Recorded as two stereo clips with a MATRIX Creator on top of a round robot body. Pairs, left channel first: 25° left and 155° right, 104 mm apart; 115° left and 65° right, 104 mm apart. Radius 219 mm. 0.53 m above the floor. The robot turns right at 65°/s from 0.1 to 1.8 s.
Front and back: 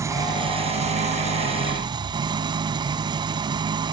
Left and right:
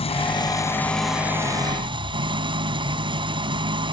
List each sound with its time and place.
0.0 s an engine running: 140° left; by 3.9 s 110° right